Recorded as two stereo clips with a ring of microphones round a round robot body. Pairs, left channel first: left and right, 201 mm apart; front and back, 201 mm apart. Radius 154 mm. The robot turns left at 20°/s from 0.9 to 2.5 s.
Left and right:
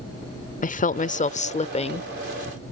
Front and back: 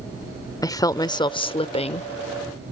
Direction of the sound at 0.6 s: 65° left.